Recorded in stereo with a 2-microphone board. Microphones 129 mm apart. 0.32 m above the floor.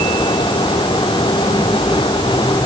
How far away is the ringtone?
No ringtone in this recording.